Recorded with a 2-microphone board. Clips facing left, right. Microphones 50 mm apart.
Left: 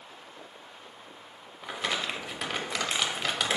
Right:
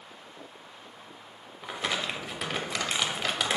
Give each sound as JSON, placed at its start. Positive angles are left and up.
{"t": 1.6, "sound": "crumpling", "side_deg": 0, "distance_m": 0.5}